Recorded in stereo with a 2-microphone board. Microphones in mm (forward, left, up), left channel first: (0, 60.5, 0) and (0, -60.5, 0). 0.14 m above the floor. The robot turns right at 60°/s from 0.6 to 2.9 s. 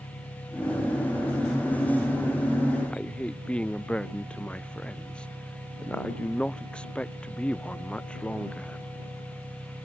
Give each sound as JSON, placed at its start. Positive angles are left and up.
{"t": 0.0, "sound": "an engine running", "azimuth_deg": 110}
{"t": 2.9, "sound": "a man speaking", "side_deg": 10}